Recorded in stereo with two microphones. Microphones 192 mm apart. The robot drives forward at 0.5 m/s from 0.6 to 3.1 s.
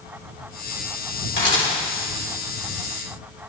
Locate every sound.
1.4 s a camera shutter: 75° left (ahead or behind), 3.5 m; by 1.7 s 80° left, 3.5 m